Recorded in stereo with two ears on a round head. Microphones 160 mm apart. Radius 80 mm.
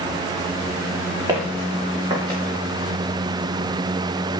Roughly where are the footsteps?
Centre.